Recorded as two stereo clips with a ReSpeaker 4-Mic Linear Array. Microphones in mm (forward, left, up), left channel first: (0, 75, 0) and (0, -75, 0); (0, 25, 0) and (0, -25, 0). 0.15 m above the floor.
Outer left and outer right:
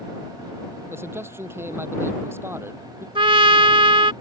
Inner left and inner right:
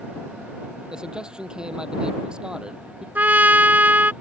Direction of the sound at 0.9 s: 15° right (ahead or behind).